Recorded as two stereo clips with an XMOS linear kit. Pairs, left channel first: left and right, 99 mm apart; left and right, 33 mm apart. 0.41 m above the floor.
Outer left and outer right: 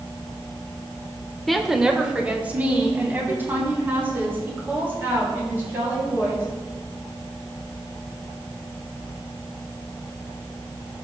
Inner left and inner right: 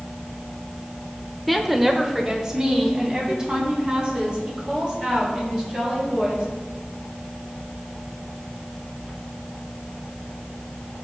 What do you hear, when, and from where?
1.5 s a woman speaking: centre (ahead or behind), 0.9 m; by 6.4 s 25° right (ahead or behind), 6.5 m